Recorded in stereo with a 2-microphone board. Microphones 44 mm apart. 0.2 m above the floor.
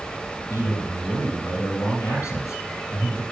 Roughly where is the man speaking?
Left.